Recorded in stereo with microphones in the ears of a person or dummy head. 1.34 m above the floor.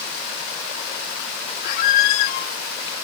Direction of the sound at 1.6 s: 55° left (ahead or behind).